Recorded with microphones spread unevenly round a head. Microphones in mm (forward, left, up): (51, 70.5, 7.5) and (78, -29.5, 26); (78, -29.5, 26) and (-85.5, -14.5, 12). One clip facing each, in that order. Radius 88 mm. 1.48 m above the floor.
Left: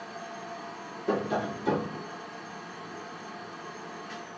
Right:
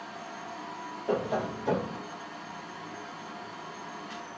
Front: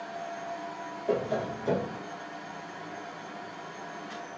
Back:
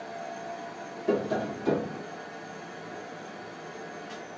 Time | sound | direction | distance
0.0 | a fan | 155° left | 2 m
1.1 | tapping | 145° left | 1.7 m